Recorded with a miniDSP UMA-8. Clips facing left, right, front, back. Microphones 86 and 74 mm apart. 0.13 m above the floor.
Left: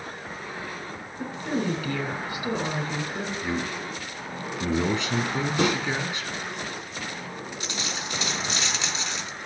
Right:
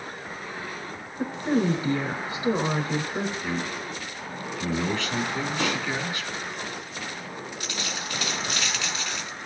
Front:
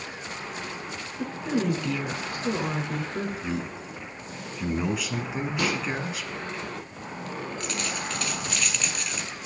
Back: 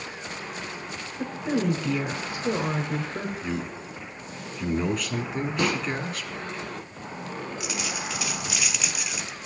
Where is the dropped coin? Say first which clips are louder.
Left 1 dB, even; 110° left, 0.7 m.